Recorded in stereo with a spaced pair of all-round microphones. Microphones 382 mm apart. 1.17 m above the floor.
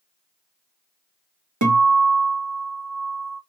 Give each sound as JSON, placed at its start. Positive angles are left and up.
{"t": 1.6, "sound": "a guitar", "side_deg": -50, "distance_m": 0.8}